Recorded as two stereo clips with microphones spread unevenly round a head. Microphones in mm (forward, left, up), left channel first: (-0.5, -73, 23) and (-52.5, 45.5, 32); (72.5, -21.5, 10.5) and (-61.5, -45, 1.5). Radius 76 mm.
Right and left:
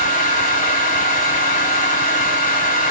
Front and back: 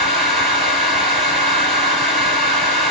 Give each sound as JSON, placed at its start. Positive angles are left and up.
{"t": 0.0, "sound": "a fan", "azimuth_deg": -80, "distance_m": 4.5}